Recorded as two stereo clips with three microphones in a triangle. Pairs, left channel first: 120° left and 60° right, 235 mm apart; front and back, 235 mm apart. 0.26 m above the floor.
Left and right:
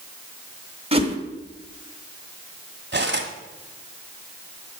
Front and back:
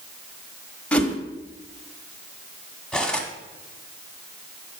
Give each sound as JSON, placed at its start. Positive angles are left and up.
{"t": 0.9, "sound": "a whoosh", "azimuth_deg": -80, "distance_m": 1.1}
{"t": 2.9, "sound": "cutlery clinking", "azimuth_deg": -85, "distance_m": 1.2}